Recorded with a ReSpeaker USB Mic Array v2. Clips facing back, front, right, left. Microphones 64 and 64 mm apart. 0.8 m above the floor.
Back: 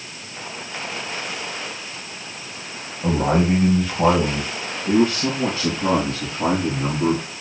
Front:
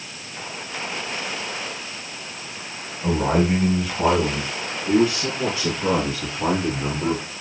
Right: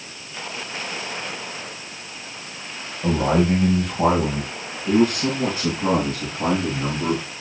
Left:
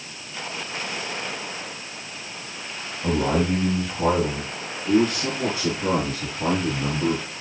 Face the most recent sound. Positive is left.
turn(degrees=-135)